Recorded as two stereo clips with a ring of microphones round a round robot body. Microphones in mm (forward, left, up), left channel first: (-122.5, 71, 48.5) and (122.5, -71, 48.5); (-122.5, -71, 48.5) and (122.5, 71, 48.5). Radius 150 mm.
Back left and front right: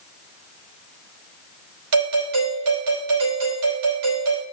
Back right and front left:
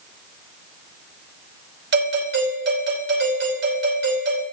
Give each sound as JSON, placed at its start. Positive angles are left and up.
{"t": 1.9, "sound": "a doorbell", "azimuth_deg": -20, "distance_m": 5.0}